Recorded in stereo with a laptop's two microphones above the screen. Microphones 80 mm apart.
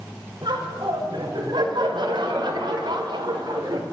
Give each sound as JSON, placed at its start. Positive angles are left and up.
{"t": 0.4, "sound": "laughter", "side_deg": -80, "distance_m": 5.5}